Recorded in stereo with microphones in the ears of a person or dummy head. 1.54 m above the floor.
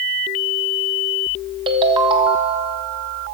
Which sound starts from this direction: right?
A ringtone, at 1.7 s.